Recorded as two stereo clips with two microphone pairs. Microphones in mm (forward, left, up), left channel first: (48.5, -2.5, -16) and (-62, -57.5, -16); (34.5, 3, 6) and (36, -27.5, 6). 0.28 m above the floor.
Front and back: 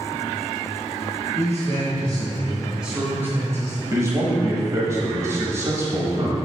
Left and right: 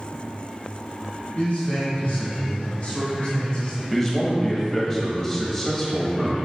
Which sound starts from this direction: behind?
A man speaking, at 3.9 s.